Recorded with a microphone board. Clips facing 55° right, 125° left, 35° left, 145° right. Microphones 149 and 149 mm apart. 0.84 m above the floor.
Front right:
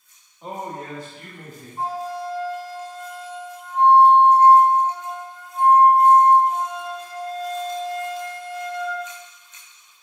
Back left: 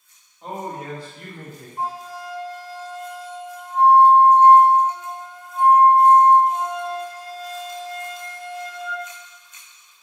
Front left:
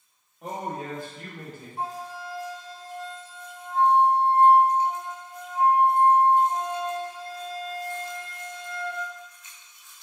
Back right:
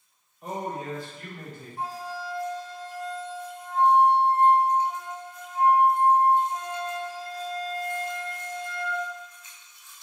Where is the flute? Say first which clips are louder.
Front right 3 dB, even; 65° left, 0.6 m.